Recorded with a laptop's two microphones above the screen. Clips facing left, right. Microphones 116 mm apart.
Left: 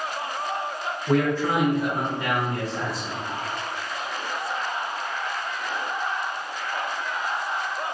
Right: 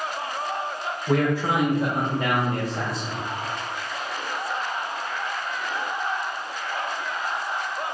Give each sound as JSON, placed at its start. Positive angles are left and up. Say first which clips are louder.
{"t": 1.1, "sound": "a man speaking", "louder": "even", "side_deg": 5, "distance_m": 0.6}